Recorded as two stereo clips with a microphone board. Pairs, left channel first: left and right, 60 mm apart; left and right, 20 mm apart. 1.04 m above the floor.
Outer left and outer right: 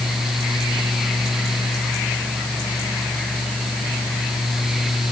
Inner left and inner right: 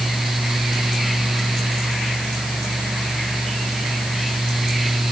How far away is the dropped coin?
I don't hear a dropped coin.